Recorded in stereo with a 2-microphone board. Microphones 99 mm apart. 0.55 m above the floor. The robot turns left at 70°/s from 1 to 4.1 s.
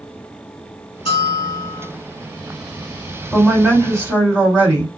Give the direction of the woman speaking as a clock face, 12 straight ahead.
12 o'clock.